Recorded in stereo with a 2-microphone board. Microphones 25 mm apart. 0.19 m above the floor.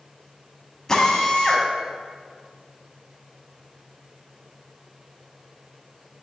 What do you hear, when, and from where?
0.9 s a drill: 20° left (ahead or behind), 1.1 m